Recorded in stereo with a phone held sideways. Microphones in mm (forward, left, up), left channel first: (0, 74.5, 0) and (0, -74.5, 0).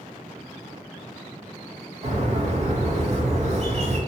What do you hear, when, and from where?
2.0 s a bird: 45° right (ahead or behind), 0.5 m